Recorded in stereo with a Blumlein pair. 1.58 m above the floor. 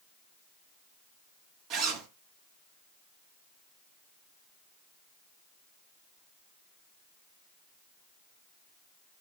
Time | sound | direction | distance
1.7 | a zipper | 30° right | 0.6 m